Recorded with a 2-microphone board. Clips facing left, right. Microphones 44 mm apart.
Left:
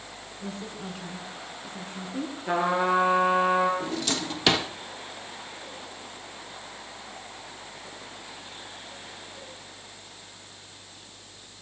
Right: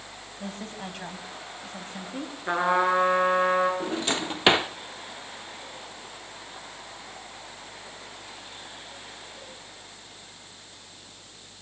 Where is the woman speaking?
70° right (ahead or behind), 4 m.